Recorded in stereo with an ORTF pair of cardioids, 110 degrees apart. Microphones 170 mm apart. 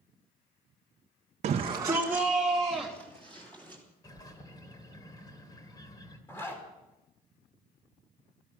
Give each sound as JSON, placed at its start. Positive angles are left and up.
{"t": 1.4, "sound": "a shout", "azimuth_deg": -50, "distance_m": 0.9}
{"t": 4.0, "sound": "a bird", "azimuth_deg": 25, "distance_m": 2.5}
{"t": 6.3, "sound": "a zipper", "azimuth_deg": 15, "distance_m": 4.5}